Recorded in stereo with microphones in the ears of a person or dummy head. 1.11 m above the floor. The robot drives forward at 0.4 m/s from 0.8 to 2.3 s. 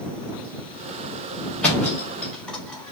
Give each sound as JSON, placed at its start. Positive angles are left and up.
{"t": 1.6, "sound": "a thud", "side_deg": 10, "distance_m": 1.3}